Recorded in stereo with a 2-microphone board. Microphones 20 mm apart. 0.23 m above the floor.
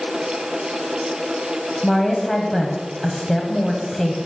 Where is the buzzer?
I don't hear a buzzer.